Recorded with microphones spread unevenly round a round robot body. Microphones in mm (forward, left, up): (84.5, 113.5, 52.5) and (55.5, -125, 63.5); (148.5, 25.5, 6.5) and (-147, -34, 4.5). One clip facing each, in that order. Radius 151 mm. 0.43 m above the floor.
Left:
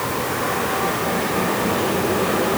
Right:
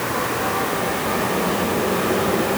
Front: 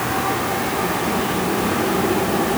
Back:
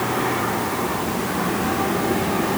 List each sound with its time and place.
Only background noise.